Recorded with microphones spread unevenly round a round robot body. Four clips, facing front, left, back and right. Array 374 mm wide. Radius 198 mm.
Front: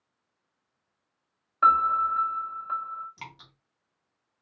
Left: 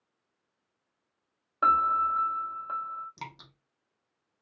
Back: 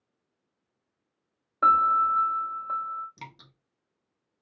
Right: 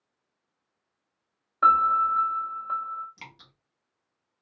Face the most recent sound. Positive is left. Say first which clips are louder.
# left 6 dB, even
turn(degrees=130)